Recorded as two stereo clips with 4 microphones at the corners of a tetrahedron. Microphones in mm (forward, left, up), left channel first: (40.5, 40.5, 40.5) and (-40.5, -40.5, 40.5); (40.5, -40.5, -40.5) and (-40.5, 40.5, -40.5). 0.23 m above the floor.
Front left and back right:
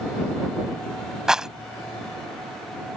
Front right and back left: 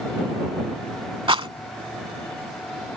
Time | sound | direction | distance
1.3 | a rattle | 140° left | ?